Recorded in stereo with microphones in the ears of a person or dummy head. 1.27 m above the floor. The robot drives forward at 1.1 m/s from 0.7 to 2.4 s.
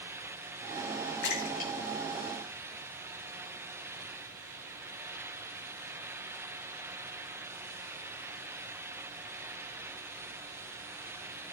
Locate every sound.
1.2 s a splash: 55° left (ahead or behind), 1.2 m; by 3.3 s 30° left (ahead or behind), 2 m